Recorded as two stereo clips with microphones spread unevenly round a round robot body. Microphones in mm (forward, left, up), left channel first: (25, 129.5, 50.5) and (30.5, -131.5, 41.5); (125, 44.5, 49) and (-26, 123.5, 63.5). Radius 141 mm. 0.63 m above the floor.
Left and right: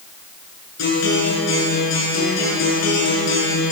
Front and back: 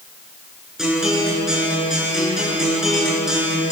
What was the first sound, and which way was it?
A guitar, 65° left.